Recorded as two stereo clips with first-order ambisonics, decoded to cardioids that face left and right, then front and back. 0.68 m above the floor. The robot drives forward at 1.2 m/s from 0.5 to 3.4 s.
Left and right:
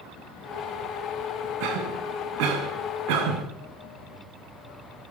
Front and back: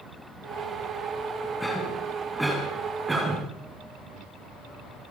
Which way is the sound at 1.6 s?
85° right.